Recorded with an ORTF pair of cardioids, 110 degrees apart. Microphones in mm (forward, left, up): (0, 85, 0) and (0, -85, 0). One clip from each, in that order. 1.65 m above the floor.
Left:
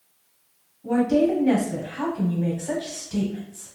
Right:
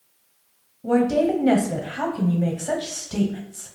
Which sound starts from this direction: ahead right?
A woman speaking, at 0.8 s.